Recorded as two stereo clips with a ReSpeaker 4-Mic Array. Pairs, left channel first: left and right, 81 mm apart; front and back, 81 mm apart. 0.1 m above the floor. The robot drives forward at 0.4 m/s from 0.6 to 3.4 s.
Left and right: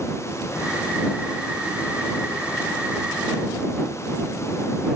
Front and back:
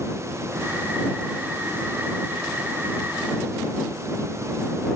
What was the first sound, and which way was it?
Only background noise.